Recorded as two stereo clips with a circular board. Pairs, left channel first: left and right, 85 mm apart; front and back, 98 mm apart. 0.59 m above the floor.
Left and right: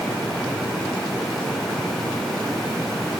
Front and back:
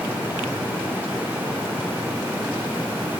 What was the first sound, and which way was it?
Only background noise.